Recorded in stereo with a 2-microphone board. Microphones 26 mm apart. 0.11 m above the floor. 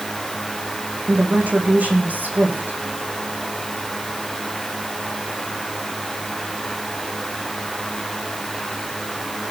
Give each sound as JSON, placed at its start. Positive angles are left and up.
{"t": 1.1, "sound": "a woman speaking", "side_deg": -65, "distance_m": 5.0}